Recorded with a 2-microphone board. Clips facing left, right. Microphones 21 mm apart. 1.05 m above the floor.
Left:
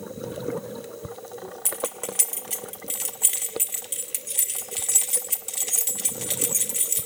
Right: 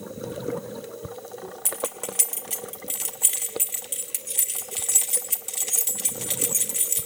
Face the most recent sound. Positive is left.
turn(degrees=0)  # may be behind; listen again after turning